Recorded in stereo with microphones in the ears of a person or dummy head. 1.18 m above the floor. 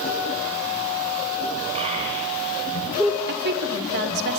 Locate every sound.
1.8 s a child speaking: 45° right (ahead or behind), 2.5 m; by 3.2 s 10° right (ahead or behind), 1.7 m
3.3 s a woman speaking: 50° right (ahead or behind), 3.5 m